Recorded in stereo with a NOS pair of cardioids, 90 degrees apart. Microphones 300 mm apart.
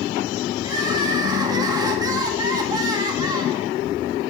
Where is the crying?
15° right, 1.0 m.